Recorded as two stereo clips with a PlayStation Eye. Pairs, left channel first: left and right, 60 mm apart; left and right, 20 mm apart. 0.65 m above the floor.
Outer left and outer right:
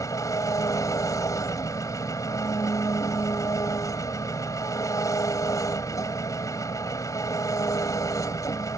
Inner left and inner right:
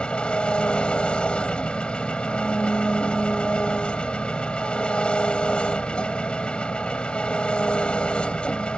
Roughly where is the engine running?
Left.